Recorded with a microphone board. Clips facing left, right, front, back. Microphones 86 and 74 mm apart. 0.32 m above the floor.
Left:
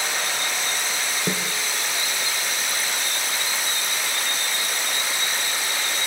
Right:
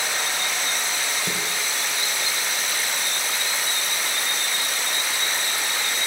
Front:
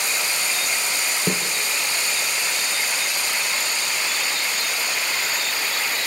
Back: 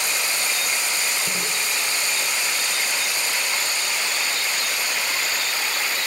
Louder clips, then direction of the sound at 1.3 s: Left 2 dB, front 4 dB; 35° left.